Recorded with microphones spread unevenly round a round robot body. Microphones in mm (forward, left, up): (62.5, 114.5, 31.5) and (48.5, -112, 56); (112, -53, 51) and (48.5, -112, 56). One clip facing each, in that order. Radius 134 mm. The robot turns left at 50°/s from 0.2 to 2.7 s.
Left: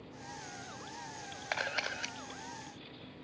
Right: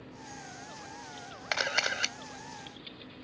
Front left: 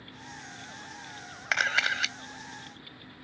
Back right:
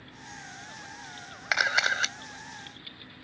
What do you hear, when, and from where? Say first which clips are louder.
1.5 s a camera shutter: right 5 dB, back right 2 dB; 55° right; by 2.2 s 85° right